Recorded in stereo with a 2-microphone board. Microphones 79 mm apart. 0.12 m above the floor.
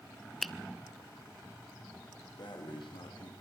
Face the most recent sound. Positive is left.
turn(degrees=75)  # may be behind; listen again after turning